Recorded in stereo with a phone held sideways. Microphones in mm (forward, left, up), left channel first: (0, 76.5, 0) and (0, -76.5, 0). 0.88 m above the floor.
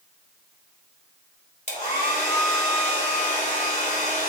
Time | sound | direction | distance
1.7 | a hair dryer | 55° left (ahead or behind) | 3 m